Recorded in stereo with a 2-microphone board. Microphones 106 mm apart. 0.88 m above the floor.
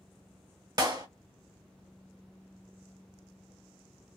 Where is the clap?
40° right (ahead or behind), 0.9 m.